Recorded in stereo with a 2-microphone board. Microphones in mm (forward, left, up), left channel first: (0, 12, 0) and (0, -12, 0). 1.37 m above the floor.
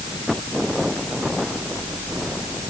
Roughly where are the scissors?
No scissors in this recording.